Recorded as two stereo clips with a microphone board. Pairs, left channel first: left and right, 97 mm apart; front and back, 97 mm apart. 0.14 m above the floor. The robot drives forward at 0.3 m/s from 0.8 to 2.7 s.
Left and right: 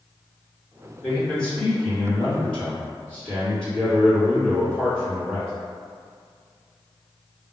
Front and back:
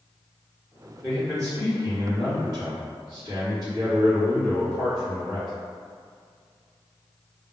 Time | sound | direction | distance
1.0 | a man speaking | 155° left | 2.0 m